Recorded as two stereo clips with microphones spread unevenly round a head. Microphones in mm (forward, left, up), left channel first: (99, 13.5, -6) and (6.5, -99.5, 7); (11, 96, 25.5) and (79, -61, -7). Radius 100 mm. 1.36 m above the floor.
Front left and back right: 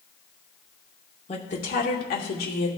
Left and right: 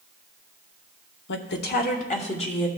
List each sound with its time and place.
1.3 s a woman speaking: 110° left, 0.9 m; by 2.7 s 50° left, 1.5 m